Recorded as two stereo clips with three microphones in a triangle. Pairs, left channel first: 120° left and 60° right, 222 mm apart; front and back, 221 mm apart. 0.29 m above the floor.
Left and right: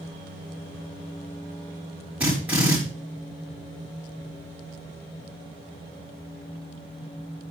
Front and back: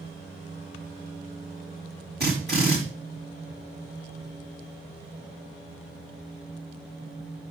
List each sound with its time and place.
2.2 s a drill: 145° right, 5 m